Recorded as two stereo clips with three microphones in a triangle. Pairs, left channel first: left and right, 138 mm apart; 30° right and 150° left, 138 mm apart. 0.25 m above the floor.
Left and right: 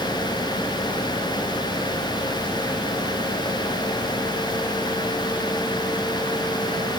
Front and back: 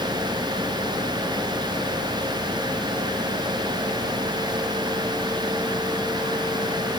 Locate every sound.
Only background noise.